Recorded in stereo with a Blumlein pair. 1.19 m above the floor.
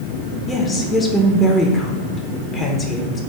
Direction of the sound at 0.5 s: 15° left.